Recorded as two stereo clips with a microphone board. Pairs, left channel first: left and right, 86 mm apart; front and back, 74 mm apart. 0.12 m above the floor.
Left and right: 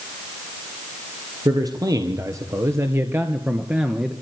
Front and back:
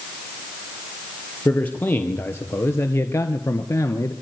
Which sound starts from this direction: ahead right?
A man speaking, at 1.4 s.